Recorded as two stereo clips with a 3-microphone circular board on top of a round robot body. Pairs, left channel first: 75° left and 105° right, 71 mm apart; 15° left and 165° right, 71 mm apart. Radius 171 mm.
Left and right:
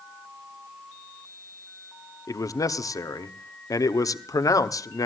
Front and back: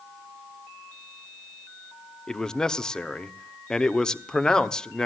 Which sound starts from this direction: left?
A man speaking, at 2.3 s.